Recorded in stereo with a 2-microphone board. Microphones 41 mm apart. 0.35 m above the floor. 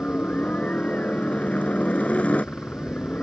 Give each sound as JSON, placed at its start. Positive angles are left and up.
{"t": 0.0, "sound": "a helicopter", "side_deg": 35}